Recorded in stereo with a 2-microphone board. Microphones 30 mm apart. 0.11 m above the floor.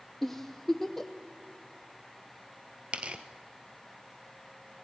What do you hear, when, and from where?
0.2 s a giggle: 5° left (ahead or behind), 1.3 m
2.9 s tearing paper: 40° right (ahead or behind), 1.1 m